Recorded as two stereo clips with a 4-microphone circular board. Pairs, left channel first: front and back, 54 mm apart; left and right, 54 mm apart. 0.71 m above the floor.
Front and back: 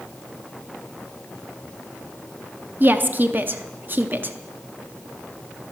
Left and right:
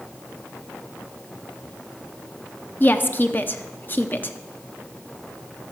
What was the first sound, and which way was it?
A woman speaking, 140° left.